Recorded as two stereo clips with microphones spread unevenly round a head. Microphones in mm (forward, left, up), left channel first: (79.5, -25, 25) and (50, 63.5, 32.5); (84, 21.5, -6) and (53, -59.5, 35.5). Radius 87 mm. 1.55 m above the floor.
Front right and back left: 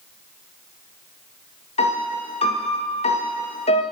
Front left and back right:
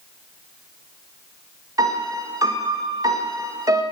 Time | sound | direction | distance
1.8 | a piano | 65° right | 1.9 m